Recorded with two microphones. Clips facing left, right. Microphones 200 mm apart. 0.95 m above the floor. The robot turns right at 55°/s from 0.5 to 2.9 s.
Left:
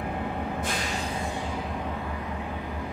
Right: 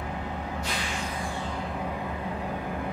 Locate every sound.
0.0 s an engine running: 115° left, 0.7 m; by 2.9 s 115° right, 0.7 m